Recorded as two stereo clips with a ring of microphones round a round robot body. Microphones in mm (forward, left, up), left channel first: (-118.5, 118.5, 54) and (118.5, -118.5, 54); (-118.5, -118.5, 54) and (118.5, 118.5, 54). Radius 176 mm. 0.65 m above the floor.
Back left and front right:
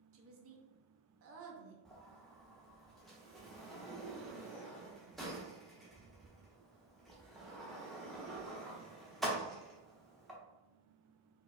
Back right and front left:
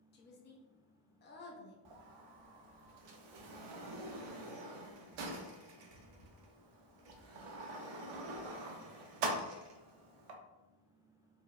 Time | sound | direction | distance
0.1 | a woman speaking | 85° right | 0.7 m
1.9 | a sliding door | 45° left | 0.5 m